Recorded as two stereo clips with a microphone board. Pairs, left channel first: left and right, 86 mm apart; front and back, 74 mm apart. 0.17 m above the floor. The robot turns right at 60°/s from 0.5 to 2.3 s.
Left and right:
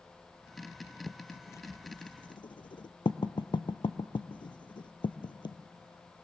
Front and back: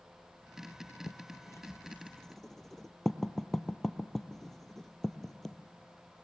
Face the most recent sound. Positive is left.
turn(degrees=85)